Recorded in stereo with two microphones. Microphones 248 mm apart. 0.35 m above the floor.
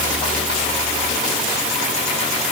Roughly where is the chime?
No chime in this recording.